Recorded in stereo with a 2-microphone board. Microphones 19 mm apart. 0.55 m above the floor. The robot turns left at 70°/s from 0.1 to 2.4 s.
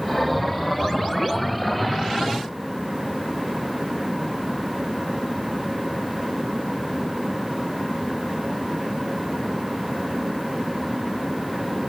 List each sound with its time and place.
Only background noise.